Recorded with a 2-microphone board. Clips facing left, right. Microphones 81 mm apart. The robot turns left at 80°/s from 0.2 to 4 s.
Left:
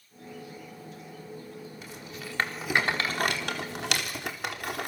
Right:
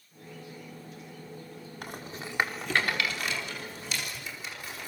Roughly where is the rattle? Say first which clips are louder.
Right 2 dB; right.